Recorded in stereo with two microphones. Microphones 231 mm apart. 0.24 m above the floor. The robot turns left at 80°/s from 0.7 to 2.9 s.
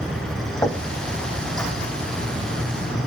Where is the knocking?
15° left (ahead or behind), 1.3 m; by 0.8 s 20° left (ahead or behind), 1.3 m.